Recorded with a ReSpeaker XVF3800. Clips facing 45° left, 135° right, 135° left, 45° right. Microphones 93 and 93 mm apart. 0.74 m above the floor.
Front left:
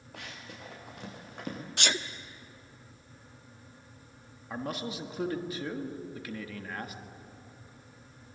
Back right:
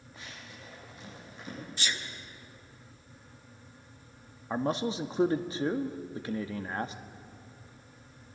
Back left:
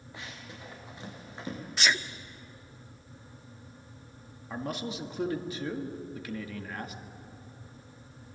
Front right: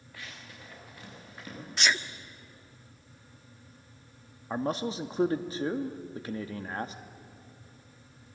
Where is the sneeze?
45° left, 1.0 m.